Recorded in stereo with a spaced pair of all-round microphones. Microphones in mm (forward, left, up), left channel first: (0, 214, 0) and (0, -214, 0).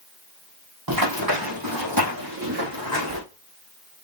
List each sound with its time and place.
0.9 s running footsteps: 55° right (ahead or behind), 2.5 m; by 3.2 s 50° right (ahead or behind), 4 m